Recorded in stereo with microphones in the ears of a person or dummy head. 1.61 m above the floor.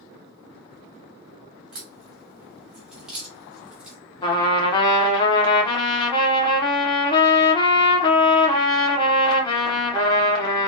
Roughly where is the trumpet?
Left.